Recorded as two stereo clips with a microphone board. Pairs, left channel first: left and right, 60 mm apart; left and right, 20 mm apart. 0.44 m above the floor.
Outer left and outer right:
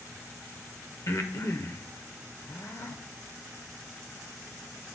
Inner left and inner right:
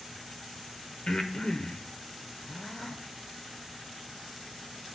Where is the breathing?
50° left (ahead or behind), 0.8 m.